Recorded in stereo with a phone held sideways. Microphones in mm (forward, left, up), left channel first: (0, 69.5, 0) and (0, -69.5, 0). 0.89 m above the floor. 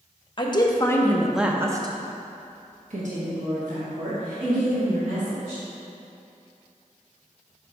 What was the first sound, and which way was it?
A woman speaking, 35° left (ahead or behind).